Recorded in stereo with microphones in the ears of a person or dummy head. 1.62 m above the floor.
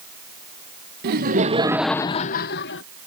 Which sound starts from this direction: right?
Laughter, at 1.0 s.